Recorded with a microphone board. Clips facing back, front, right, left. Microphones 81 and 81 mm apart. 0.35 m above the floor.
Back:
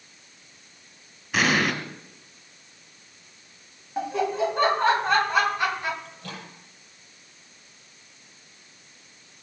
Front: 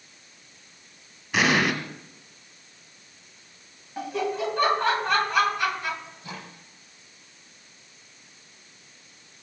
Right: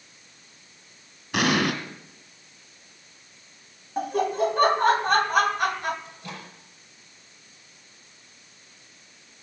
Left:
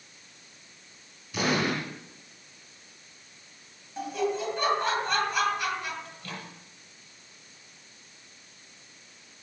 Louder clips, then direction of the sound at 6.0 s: Even, right 1 dB; 160° right.